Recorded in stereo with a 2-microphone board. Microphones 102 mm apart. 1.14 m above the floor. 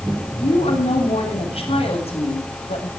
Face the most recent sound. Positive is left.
turn(degrees=80)